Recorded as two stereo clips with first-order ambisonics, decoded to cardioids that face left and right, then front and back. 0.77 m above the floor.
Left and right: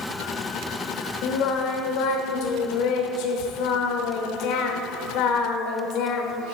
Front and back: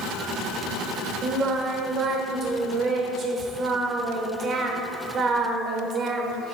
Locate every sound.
1.2 s singing: 120° left, 1.0 m